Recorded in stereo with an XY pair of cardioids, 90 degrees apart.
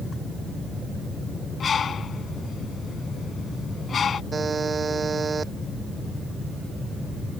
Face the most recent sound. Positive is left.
turn(degrees=-40)